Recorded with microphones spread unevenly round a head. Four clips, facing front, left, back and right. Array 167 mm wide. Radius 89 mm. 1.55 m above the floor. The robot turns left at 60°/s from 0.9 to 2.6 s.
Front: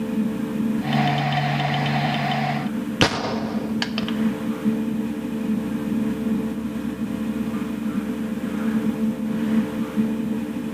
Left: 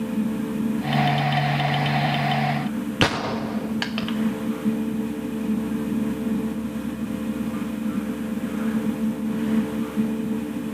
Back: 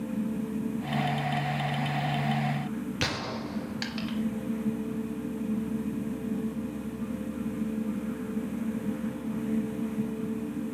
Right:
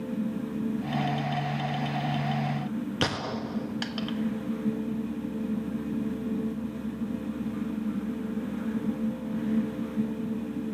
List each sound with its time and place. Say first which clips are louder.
3.0 s a gunshot: left 10 dB, front 11 dB; 40° left, 1.0 m